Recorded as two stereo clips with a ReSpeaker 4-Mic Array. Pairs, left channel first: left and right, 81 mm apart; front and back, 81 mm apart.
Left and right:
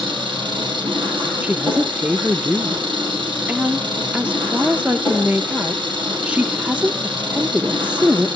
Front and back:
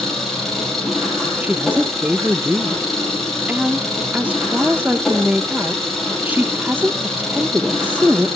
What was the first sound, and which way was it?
An engine running, 90° right.